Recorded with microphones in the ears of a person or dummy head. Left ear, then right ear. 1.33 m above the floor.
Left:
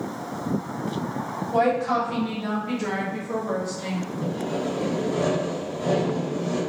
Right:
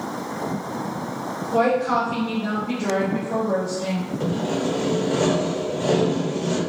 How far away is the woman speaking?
About 1.4 m.